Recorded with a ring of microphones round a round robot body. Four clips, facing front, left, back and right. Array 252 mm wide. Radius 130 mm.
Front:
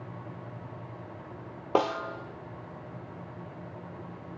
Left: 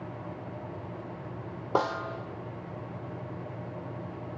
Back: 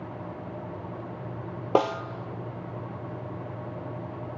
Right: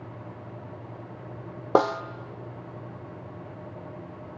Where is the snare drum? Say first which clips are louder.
Right 6 dB, back 3 dB; 120° right, 1.5 m.